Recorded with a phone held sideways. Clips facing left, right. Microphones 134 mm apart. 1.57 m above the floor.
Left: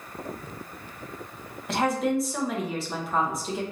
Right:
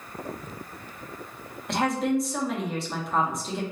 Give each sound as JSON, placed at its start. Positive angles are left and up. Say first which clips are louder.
{"t": 1.7, "sound": "a woman speaking", "louder": "even", "side_deg": 0, "distance_m": 1.3}